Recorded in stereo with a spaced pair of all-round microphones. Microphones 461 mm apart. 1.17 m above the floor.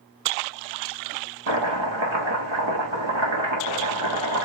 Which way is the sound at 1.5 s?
75° right (ahead or behind).